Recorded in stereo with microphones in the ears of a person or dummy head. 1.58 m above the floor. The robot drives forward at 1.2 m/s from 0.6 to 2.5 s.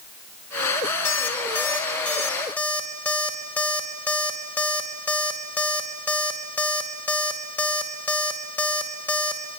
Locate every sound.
1.1 s an alarm clock: 15° left (ahead or behind), 1.8 m; by 9.6 s 5° left (ahead or behind), 3.5 m